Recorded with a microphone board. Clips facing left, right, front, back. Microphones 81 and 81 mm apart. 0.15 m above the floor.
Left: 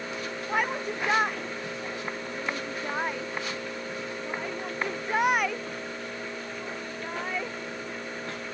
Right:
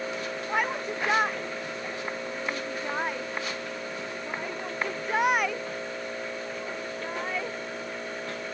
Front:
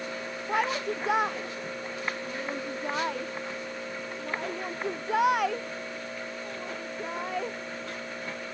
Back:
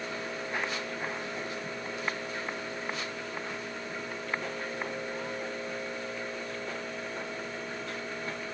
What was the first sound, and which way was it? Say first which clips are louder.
A shout: left 1 dB, front 9 dB; straight ahead.